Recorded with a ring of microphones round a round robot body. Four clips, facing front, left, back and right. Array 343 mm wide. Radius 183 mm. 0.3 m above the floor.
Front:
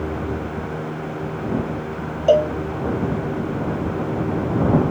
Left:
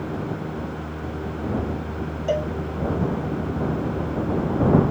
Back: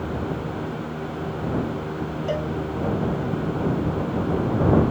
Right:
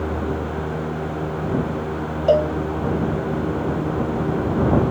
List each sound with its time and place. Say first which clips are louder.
2.3 s a cowbell: right 8 dB, front 13 dB; 35° right